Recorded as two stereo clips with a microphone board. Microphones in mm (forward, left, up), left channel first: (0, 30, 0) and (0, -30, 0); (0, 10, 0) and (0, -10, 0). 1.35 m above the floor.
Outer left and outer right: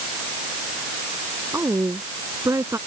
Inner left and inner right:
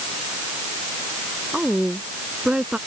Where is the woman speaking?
55° right (ahead or behind).